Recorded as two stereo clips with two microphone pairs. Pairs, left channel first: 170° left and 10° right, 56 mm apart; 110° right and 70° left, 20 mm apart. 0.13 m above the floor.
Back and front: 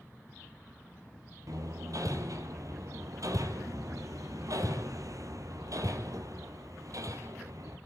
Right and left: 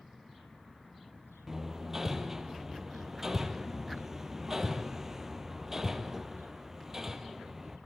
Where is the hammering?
5° right, 2 m.